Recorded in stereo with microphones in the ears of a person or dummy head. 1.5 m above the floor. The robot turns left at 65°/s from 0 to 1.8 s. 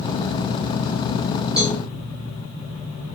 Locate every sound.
1.6 s a cowbell: 5° right (ahead or behind), 1.2 m; by 1.8 s 15° right (ahead or behind), 1.2 m